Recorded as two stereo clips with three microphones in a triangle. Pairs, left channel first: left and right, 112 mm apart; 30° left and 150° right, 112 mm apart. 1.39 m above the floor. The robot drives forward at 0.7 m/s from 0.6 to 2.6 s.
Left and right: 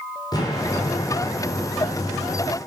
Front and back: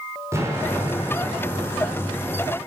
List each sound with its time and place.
0.3 s an explosion: 145° left, 4 m; by 2.6 s 155° left, 5 m